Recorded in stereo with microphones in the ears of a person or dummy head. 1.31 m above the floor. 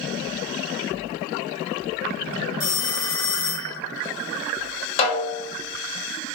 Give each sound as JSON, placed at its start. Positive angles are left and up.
{"t": 2.6, "sound": "a phone ringing", "side_deg": 20, "distance_m": 2.5}
{"t": 5.0, "sound": "a snare drum", "side_deg": 30, "distance_m": 1.2}